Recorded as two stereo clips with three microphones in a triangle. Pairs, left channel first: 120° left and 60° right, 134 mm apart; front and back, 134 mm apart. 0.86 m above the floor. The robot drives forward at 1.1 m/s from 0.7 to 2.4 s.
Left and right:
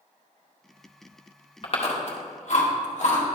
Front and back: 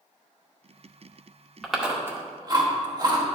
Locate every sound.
1.6 s chewing: 85° left, 1.3 m; by 3.4 s 125° left, 1.5 m